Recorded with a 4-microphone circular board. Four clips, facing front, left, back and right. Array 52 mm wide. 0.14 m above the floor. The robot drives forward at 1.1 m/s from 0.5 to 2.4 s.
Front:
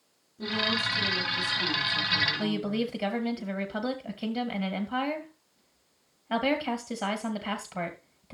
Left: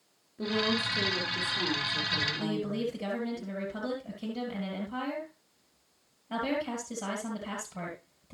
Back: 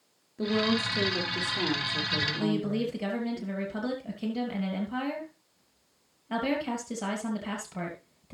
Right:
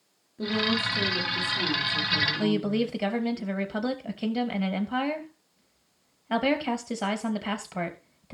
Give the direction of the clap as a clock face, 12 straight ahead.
No clap in this recording.